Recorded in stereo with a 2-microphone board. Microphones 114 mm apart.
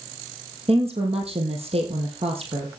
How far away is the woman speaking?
About 3 m.